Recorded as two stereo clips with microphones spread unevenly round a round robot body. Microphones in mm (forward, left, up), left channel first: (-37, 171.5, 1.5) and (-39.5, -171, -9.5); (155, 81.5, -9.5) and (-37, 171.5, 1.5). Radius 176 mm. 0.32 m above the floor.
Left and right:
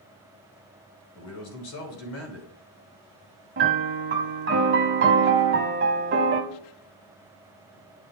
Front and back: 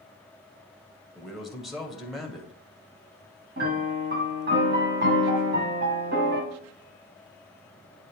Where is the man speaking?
65° left, 1.9 m.